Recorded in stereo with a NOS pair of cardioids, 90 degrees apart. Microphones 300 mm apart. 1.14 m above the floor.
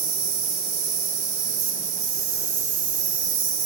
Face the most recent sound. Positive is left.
turn(degrees=-70)